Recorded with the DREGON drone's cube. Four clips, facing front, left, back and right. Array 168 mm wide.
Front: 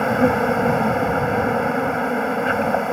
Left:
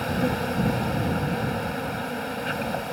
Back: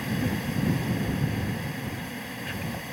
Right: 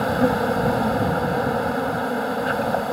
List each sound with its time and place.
0.0 s an insect: 25° right